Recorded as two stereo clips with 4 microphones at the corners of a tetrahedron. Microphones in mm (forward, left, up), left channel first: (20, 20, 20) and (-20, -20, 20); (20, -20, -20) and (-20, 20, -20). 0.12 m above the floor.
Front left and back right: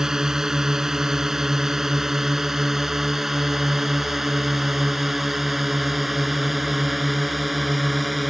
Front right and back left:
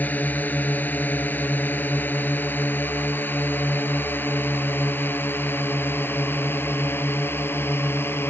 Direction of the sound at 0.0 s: 65° right.